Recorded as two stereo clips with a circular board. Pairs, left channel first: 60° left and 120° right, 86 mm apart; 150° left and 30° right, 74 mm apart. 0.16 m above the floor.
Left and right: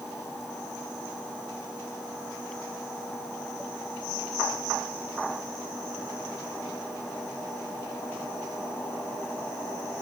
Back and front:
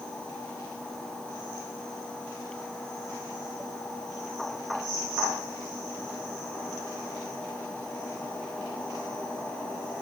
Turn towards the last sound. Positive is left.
No sound to turn to.